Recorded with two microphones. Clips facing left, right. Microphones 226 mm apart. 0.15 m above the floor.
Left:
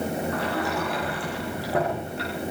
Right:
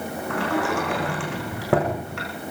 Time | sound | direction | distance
0.3 | a sliding door | 80° right | 6 m